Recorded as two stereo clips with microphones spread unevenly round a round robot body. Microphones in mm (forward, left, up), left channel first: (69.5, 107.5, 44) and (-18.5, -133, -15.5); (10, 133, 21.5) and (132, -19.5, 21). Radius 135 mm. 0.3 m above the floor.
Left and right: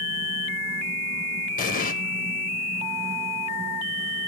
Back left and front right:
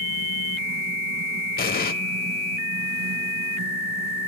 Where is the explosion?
135° left, 1.0 m.